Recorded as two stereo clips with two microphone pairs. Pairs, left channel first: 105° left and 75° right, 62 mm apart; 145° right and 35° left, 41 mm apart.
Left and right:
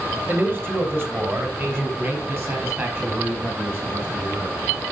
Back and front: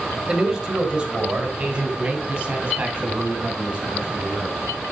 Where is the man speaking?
35° right, 1.8 m; by 4.6 s 30° right, 5 m.